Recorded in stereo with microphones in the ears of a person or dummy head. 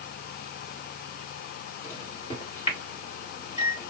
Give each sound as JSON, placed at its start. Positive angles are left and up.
{"t": 1.8, "sound": "a microwave", "side_deg": 35, "distance_m": 3.0}